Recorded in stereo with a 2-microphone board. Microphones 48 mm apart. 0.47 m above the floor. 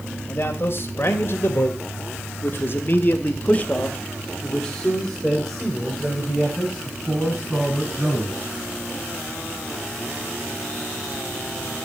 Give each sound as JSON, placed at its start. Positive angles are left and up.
{"t": 0.3, "sound": "a man speaking", "side_deg": 40, "distance_m": 2.0}